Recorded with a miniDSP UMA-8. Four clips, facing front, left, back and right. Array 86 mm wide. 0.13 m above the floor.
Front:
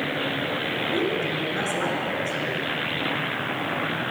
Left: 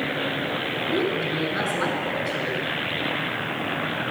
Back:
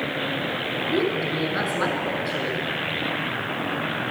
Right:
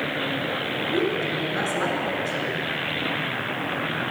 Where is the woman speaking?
155° left, 1.3 m.